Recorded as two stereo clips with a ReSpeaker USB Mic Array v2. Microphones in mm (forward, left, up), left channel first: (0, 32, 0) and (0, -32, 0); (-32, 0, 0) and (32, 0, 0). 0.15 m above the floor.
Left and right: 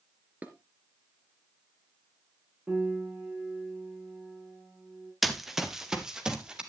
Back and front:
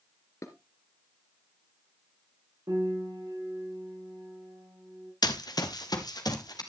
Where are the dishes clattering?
150° right, 1.6 m.